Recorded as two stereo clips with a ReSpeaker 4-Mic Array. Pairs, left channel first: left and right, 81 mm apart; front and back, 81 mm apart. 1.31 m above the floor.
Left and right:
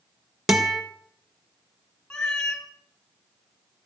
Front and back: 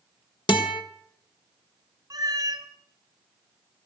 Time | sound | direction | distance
0.5 | a guitar | 5° right | 1.6 m
2.1 | a cat meowing | 170° left | 1.7 m